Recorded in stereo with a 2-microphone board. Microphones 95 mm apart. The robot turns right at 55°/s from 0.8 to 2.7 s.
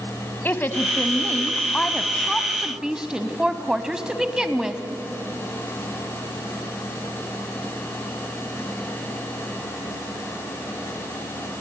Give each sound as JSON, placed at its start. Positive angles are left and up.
{"t": 0.5, "sound": "a woman speaking", "side_deg": 20, "distance_m": 1.1}